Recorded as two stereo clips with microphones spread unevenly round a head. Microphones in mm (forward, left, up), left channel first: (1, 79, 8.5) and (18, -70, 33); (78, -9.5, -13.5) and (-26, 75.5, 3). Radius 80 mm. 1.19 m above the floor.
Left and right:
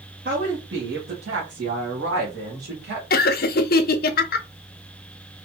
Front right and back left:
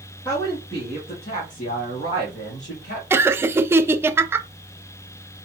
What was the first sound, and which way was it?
A woman speaking, 110° right.